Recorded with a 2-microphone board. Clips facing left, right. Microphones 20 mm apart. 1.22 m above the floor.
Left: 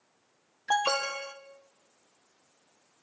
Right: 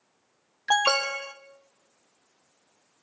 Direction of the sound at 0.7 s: 45° right (ahead or behind).